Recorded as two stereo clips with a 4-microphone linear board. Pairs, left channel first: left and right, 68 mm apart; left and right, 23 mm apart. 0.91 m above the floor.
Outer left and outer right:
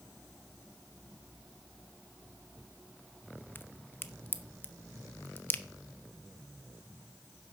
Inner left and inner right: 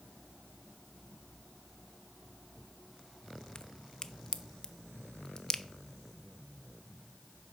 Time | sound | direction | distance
3.5 | a crack | 35° left (ahead or behind) | 0.7 m